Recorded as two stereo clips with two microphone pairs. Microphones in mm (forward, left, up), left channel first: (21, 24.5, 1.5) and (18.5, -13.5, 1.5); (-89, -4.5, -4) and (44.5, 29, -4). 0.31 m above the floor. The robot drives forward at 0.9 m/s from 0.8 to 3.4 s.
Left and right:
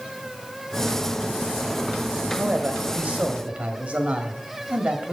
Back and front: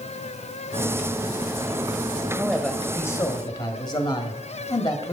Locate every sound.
2.4 s a man speaking: 65° right, 1.3 m; by 5.1 s 130° right, 1.4 m